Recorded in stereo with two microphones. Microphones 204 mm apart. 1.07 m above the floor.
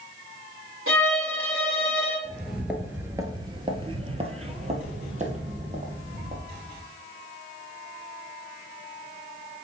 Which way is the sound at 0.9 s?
85° right.